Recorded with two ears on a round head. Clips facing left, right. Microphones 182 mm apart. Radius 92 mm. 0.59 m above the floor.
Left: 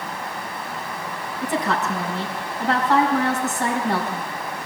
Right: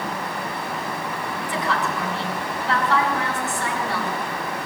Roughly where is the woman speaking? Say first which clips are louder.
Left 3 dB; left.